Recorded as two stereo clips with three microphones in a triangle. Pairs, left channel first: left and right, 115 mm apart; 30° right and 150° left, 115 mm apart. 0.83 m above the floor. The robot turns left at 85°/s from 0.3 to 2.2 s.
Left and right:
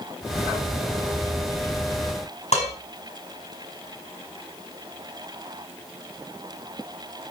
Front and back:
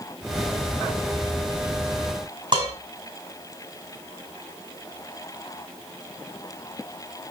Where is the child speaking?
I don't hear a child speaking.